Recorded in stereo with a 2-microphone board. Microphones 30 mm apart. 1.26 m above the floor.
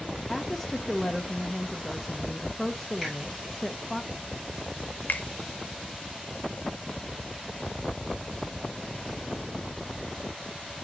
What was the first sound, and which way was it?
A woman speaking, 5° left (ahead or behind).